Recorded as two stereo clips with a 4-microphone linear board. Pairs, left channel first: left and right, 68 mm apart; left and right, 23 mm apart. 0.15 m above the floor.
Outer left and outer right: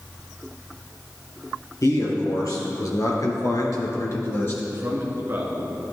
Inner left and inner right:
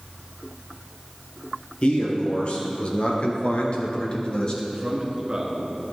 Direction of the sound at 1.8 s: 50° left (ahead or behind).